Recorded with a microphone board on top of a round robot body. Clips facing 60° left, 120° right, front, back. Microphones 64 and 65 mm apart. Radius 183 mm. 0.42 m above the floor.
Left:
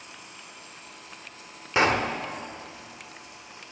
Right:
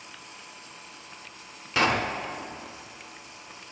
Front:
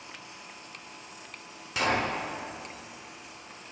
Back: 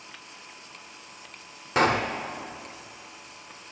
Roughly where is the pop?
Behind left.